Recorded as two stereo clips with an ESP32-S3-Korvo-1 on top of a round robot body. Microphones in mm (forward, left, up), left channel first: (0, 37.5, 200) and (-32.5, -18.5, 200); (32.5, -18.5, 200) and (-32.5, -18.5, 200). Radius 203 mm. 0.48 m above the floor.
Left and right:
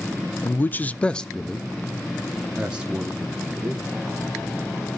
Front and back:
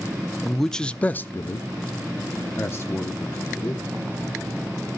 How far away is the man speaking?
About 0.7 m.